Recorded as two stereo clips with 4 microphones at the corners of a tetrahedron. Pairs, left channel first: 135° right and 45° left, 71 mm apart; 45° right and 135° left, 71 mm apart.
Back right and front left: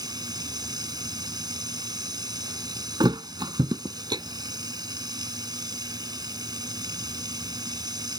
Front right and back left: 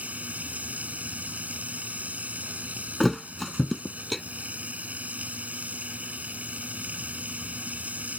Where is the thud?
45° left.